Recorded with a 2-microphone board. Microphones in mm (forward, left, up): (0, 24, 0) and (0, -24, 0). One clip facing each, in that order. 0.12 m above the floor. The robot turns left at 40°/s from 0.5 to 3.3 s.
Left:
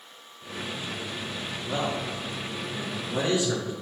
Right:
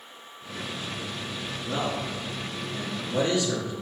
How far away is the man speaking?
About 1.2 m.